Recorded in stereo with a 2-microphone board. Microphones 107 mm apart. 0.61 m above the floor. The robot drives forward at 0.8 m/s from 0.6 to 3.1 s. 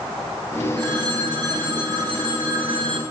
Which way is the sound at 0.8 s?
40° right (ahead or behind).